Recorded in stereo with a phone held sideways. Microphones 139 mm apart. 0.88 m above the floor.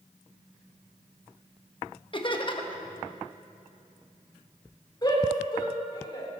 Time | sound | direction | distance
2.1 | laughter | 35° left (ahead or behind) | 1.3 m
5.0 | a shout | 30° left (ahead or behind) | 2.5 m